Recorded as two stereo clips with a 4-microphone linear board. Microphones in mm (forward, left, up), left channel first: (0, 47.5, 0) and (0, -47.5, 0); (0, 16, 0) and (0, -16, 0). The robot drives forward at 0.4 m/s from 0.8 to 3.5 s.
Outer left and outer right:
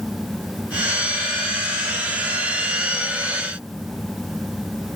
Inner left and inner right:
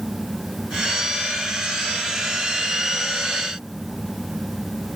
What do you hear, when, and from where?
Only background noise.